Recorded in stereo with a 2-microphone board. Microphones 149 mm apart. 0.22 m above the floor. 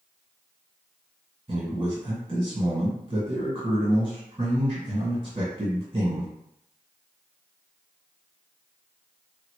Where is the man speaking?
35° right (ahead or behind), 1.9 m.